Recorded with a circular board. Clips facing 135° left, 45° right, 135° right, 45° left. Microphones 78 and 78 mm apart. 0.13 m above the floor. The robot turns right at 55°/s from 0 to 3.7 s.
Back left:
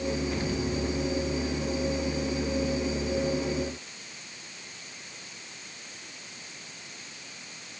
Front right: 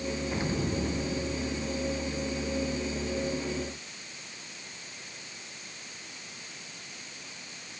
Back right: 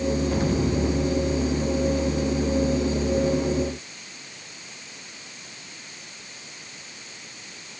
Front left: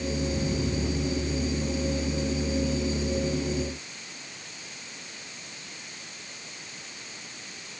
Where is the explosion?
120° right; by 1.7 s 40° right.